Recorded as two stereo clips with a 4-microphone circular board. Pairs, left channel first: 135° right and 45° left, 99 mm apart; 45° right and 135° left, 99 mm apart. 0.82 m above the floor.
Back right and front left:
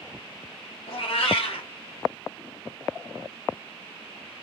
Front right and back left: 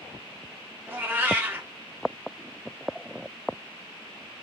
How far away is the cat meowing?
About 0.7 m.